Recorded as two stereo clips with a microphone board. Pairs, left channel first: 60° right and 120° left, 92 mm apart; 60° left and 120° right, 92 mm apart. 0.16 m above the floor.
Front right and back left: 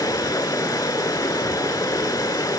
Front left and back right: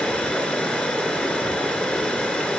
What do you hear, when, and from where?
0.0 s running water: 15° right, 1.0 m